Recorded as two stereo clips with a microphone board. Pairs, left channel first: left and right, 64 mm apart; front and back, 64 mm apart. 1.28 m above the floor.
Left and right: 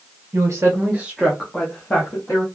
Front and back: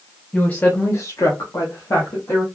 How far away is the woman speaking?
About 0.7 m.